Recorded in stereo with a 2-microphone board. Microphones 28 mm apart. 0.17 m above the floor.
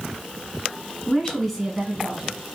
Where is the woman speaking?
25° left (ahead or behind), 1.5 m; by 2.6 s 25° right (ahead or behind), 1.6 m.